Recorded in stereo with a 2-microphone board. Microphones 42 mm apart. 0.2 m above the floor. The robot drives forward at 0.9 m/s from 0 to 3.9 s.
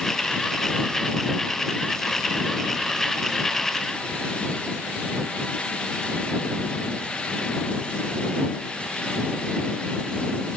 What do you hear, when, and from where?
Only background noise.